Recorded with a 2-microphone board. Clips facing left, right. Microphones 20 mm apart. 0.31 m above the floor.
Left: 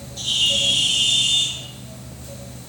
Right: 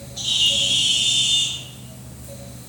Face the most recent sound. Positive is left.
turn(degrees=-5)  # may be behind; listen again after turning